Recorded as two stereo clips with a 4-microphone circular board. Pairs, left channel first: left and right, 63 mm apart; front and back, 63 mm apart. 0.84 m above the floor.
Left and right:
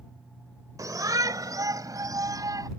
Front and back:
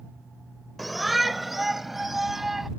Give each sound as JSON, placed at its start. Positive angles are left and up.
{"t": 0.8, "sound": "a shout", "azimuth_deg": -90}